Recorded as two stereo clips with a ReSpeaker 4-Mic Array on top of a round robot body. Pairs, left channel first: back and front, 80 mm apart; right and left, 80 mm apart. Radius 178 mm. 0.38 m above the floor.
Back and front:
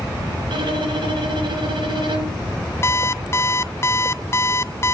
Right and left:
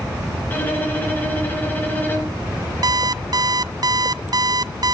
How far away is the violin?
About 4 m.